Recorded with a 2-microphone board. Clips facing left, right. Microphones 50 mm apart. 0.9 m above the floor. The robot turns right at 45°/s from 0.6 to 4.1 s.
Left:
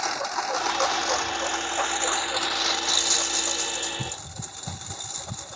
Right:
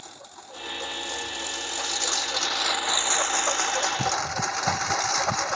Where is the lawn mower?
90° left; by 5.6 s 110° right.